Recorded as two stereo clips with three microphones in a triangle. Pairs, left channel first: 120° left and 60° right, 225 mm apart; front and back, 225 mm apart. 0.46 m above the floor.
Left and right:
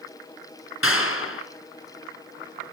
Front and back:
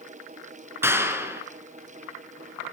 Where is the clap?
100° left, 4 m.